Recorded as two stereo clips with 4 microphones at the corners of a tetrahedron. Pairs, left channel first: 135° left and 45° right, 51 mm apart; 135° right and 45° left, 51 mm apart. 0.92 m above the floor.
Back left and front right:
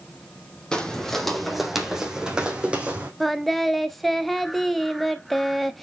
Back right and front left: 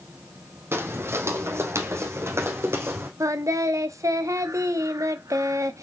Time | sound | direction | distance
0.7 | footsteps | 65° left | 1.5 m
3.2 | singing | 45° left | 0.8 m